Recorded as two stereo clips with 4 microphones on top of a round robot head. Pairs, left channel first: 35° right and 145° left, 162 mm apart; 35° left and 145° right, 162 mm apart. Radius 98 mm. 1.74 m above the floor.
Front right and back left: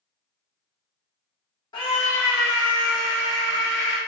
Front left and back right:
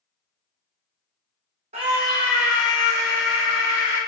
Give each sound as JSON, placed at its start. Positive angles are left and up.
{"t": 1.7, "sound": "a scream", "azimuth_deg": -100, "distance_m": 0.7}